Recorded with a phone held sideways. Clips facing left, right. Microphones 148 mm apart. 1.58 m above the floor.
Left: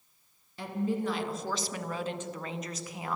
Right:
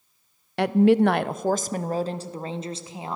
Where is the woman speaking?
75° right (ahead or behind), 0.5 m; by 3.2 s 25° right (ahead or behind), 1.7 m.